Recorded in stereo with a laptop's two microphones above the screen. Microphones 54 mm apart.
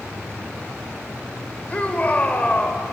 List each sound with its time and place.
1.7 s a shout: 30° left (ahead or behind), 4.5 m